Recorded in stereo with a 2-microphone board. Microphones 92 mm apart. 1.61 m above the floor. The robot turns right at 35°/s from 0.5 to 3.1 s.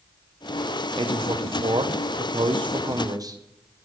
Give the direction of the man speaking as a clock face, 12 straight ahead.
4 o'clock.